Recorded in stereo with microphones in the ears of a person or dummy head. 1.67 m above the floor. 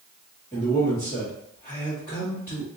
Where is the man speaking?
20° left (ahead or behind), 1.9 m.